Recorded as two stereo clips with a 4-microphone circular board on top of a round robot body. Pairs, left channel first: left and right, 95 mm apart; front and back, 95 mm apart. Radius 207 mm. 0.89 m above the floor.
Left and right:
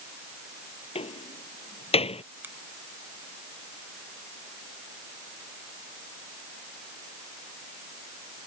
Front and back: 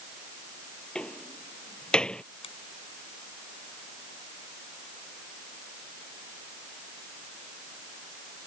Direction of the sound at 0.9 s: 80° left.